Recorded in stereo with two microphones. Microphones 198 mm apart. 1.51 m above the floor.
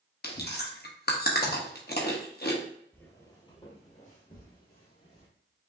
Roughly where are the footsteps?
Centre.